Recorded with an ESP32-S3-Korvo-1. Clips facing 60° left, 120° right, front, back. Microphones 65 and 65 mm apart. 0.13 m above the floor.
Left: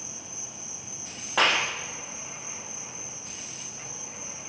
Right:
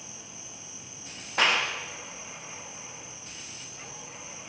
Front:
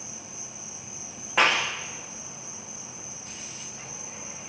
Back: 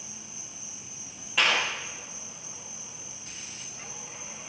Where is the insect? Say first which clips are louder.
Left 3 dB, front 4 dB; 40° left, 5 m.